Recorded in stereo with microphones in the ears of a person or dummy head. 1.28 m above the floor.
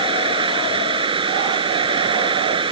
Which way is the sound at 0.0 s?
25° right (ahead or behind).